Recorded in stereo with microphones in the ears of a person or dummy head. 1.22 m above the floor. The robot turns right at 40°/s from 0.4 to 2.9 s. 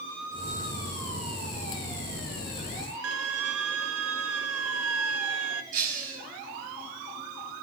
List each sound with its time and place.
3.0 s a violin: 75° right (ahead or behind), 0.9 m
5.7 s breaking glass: 50° right (ahead or behind), 5.5 m